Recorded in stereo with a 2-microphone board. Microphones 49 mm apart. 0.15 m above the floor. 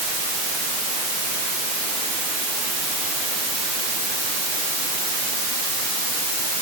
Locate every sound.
Only background noise.